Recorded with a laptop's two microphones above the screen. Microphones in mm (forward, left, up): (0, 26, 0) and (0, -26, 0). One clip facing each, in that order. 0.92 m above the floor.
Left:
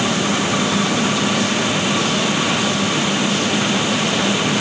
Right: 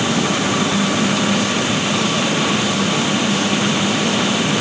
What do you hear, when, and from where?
Only background noise.